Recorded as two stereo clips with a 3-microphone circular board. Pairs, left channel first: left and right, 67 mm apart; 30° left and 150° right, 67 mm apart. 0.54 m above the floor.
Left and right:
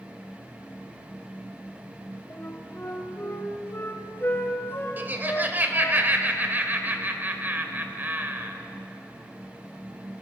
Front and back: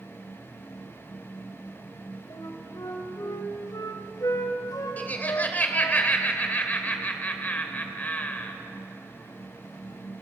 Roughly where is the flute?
Ahead left.